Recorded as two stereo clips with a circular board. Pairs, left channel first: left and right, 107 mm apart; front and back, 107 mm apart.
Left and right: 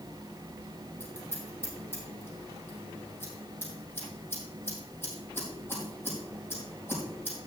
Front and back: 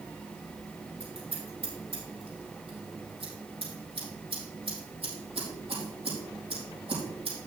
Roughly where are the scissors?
Behind.